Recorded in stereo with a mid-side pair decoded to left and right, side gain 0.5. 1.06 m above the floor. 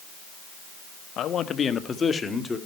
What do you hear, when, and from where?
1.2 s a man speaking: 60° left, 1.3 m; by 2.6 s 25° left, 2.5 m